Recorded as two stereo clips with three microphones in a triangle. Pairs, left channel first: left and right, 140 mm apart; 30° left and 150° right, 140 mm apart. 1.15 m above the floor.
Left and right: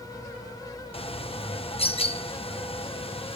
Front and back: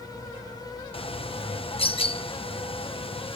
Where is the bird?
60° left, 0.7 m.